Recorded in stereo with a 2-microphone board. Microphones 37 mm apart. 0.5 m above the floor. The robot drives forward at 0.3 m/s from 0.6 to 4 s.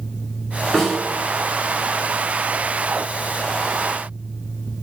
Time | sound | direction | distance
0.7 | a snare drum | centre (ahead or behind) | 1.5 m